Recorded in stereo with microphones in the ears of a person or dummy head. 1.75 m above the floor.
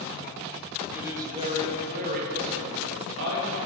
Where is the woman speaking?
10° right (ahead or behind), 1.2 m; by 3.6 s 75° right (ahead or behind), 2 m.